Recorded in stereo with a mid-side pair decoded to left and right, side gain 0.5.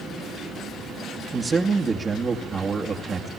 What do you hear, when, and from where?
1.3 s a man speaking: 30° right, 2 m